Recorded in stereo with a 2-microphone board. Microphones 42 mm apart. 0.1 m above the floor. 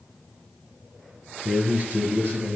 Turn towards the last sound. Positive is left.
turn(degrees=-45)  # may be behind; listen again after turning